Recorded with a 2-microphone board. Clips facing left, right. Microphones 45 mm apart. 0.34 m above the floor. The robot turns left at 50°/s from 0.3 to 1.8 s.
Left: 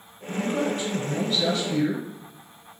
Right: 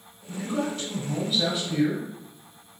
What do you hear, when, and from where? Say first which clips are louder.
0.3 s a man speaking: left 3 dB; 35° left, 1.1 m; by 2.0 s 40° right, 1.1 m